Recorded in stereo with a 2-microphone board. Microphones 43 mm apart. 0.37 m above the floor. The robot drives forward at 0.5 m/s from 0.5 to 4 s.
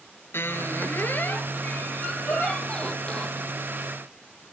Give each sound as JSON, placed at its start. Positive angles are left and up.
{"t": 0.3, "sound": "a squeak", "side_deg": 65, "distance_m": 0.9}
{"t": 2.3, "sound": "a giggle", "side_deg": 60, "distance_m": 5.5}